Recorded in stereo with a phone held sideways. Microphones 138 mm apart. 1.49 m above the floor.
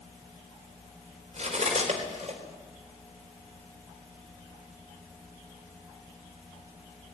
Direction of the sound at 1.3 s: 55° right (ahead or behind).